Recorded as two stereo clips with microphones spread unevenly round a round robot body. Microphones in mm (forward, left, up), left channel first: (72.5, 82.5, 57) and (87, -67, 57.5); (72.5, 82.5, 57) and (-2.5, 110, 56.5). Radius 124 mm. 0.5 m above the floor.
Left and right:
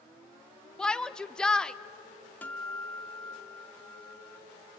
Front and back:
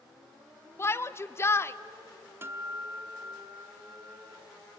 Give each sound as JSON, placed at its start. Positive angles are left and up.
{"t": 0.8, "sound": "a shout", "azimuth_deg": 15, "distance_m": 0.9}
{"t": 2.4, "sound": "a guitar", "azimuth_deg": 160, "distance_m": 0.9}